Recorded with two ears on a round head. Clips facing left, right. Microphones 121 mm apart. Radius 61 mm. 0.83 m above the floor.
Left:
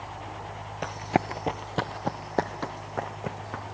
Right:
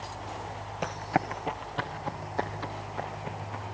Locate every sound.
0.8 s running footsteps: 5° right (ahead or behind), 0.8 m; by 3.6 s 65° left (ahead or behind), 4.5 m